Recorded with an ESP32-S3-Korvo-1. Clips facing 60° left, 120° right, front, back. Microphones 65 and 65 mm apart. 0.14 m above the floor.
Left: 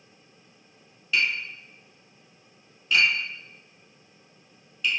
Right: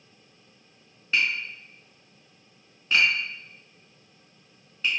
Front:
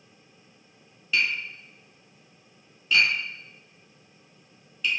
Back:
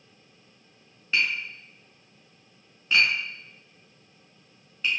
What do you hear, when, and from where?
1.1 s tapping: 150° right, 1.0 m